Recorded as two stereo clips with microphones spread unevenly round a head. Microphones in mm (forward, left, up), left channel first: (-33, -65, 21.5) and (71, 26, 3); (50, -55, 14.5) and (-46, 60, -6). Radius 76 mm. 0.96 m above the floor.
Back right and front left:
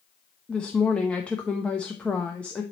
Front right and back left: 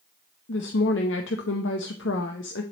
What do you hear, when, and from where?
0.5 s a woman speaking: 55° right, 0.7 m